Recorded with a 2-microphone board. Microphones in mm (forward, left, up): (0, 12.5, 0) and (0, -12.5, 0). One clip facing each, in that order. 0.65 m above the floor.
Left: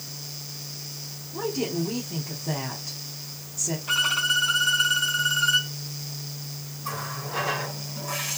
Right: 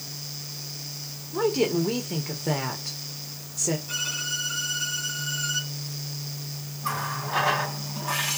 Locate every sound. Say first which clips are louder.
1.3 s a woman speaking: right 5 dB; 65° right (ahead or behind), 1.6 m
3.9 s a violin: left 7 dB; 65° left (ahead or behind), 2.0 m
6.8 s a running tap: right 4 dB; 45° right (ahead or behind), 3 m